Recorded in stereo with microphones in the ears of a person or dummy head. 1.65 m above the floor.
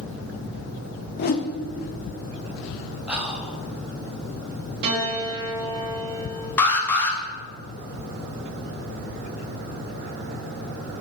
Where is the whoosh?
50° left (ahead or behind), 0.6 m.